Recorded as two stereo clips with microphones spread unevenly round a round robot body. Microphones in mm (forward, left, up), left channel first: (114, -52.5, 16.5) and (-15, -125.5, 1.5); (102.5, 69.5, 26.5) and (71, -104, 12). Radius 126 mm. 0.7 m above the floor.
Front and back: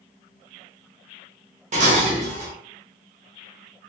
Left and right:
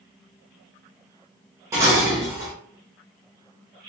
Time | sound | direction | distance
1.7 | dishes clattering | 170° right | 0.5 m